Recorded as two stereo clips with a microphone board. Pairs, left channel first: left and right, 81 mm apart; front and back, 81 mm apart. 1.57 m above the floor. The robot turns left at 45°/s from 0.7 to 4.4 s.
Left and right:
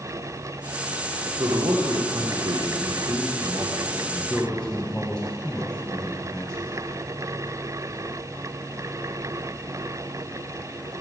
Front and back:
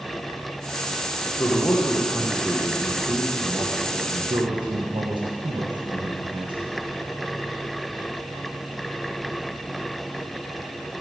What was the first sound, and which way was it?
A man speaking, 55° right.